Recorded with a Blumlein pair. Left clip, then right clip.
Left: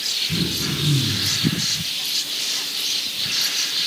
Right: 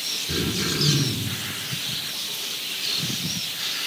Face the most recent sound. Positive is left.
turn(degrees=-65)